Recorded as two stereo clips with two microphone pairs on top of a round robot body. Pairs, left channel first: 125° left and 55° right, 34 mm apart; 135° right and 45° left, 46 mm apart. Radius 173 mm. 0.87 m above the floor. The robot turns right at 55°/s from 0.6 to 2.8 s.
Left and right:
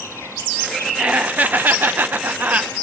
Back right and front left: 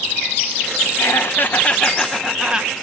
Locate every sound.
1.0 s laughter: 115° right, 1.3 m; by 2.7 s 20° right, 1.3 m